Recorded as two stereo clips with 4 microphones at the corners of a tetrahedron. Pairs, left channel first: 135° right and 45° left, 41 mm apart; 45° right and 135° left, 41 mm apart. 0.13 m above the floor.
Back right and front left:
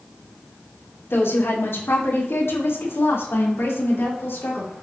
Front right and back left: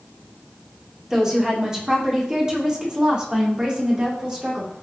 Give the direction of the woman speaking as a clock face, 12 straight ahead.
5 o'clock.